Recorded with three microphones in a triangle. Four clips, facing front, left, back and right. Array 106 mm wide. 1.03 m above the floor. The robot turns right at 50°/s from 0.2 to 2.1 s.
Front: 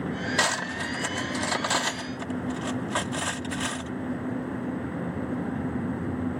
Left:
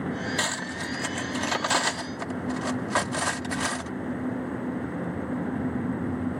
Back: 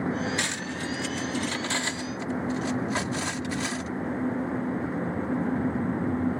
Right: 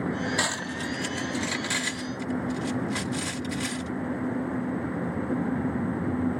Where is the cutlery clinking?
5° right; by 3.9 s 80° left.